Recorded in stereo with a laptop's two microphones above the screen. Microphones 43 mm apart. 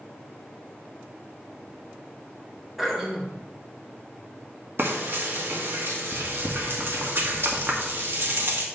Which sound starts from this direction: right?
Frying, at 4.8 s.